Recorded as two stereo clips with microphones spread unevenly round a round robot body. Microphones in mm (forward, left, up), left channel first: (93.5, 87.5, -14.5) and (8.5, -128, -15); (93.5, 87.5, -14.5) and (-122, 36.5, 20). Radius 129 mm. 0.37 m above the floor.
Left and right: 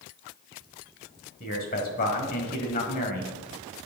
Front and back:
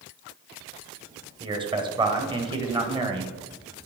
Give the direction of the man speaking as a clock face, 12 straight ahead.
8 o'clock.